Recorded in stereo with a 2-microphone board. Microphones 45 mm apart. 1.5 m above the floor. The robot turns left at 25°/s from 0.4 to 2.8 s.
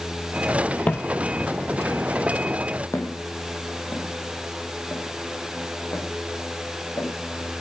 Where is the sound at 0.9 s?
35° left (ahead or behind), 1.7 m.